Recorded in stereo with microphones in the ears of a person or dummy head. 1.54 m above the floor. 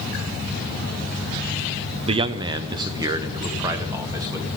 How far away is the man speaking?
About 0.5 m.